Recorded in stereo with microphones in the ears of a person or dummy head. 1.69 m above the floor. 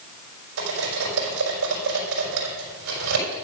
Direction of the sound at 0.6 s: 70° right (ahead or behind).